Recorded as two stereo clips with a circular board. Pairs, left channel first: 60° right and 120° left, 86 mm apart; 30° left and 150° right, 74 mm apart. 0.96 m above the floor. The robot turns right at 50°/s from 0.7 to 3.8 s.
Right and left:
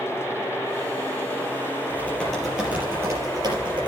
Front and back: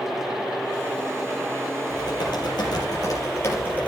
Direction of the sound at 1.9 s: 5° left.